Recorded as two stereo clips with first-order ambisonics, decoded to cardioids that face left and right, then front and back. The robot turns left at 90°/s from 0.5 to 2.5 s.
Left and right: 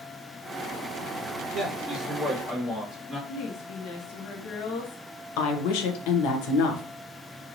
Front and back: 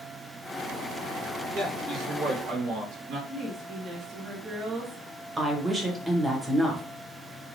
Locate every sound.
1.5 s a man speaking: 115° right, 1.4 m; by 3.2 s 160° left, 1.4 m
3.3 s a woman speaking: 110° left, 1.2 m
5.4 s a woman speaking: 100° left, 0.9 m